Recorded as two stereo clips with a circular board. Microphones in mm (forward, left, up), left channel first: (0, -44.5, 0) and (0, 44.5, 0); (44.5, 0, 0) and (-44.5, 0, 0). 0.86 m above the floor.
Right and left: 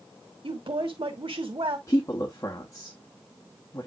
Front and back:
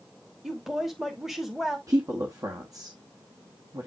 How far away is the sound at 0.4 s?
About 1.2 m.